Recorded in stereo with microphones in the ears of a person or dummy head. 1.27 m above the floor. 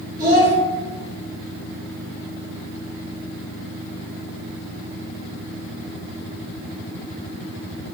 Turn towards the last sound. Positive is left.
turn(degrees=-50)  # may be behind; listen again after turning